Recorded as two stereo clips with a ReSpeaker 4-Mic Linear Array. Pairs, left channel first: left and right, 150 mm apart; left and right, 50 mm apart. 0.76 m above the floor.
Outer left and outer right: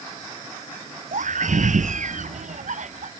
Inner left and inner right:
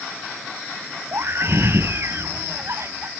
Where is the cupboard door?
No cupboard door in this recording.